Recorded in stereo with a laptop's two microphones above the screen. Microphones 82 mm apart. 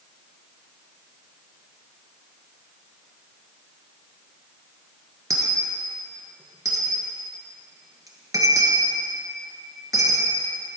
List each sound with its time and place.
5.3 s a dropped coin: 45° right (ahead or behind), 1.4 m